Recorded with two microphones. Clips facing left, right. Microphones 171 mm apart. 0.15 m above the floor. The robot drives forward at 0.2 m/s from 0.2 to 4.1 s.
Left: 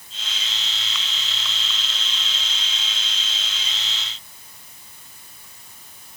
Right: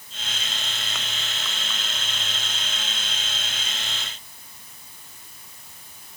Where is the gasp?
I don't hear a gasp.